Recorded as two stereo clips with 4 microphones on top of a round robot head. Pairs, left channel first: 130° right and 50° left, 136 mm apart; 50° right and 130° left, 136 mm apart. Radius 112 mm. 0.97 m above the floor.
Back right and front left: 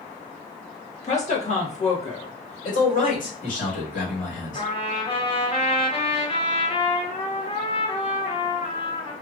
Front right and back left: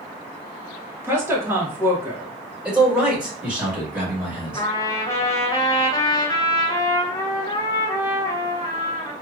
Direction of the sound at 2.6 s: 145° right.